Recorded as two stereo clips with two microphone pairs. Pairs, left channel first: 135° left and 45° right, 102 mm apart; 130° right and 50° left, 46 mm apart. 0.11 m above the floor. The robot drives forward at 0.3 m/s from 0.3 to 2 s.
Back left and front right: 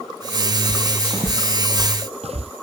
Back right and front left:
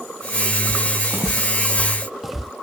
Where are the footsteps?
35° left; by 2.5 s 40° right.